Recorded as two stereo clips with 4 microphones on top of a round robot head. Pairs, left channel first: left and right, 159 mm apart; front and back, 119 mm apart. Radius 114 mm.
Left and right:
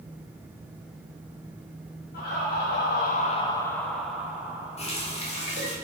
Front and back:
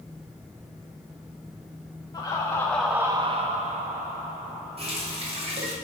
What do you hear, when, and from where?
2.1 s laughter: 55° left, 1.1 m; by 5.6 s 165° right, 2.5 m
4.8 s a running tap: 140° left, 1.7 m